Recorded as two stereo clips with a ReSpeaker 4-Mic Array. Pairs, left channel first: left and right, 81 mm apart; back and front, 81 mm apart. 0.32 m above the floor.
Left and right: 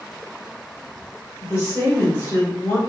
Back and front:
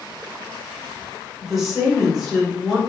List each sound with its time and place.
1.4 s a woman speaking: 85° left, 1.4 m